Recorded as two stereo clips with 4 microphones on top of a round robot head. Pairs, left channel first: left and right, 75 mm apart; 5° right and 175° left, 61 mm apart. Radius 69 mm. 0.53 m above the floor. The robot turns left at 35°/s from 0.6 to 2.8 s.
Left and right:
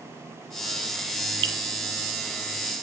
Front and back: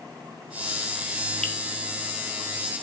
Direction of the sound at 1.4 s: 85° right.